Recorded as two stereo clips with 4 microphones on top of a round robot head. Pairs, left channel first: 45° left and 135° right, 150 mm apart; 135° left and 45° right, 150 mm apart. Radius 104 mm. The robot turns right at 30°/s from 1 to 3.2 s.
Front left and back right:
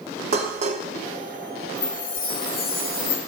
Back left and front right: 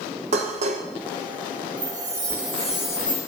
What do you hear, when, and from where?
0.3 s dishes clattering: 90° right, 0.7 m
1.8 s a chime: 15° left, 2.0 m; by 3.2 s 55° left, 2.0 m